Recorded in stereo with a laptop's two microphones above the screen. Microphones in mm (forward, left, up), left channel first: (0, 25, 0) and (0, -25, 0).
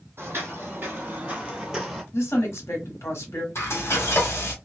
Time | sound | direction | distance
0.2 | footsteps | 55° right (ahead or behind) | 1.6 m
2.1 | a woman speaking | 65° left (ahead or behind) | 1.4 m
3.5 | frying | 60° left (ahead or behind) | 1.3 m